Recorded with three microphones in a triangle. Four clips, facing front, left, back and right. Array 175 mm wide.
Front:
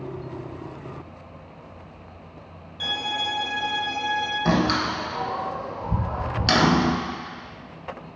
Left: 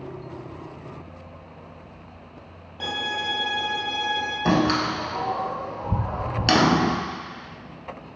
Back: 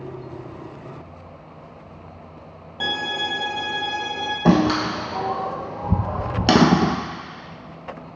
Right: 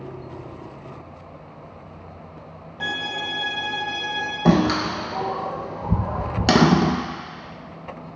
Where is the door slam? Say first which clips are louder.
Right 3 dB, back 6 dB; 150° right, 1.4 m.